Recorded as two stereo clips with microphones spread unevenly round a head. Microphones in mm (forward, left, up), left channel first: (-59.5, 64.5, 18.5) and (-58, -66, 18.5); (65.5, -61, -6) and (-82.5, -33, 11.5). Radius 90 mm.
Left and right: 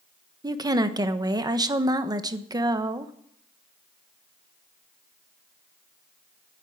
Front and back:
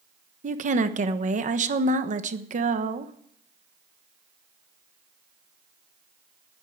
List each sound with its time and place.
0.4 s a woman speaking: 150° right, 1.3 m